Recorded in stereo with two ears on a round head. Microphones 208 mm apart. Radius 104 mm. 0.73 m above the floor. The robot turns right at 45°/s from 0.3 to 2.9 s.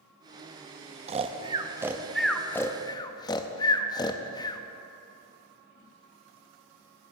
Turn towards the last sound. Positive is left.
turn(degrees=20)  # may be behind; listen again after turning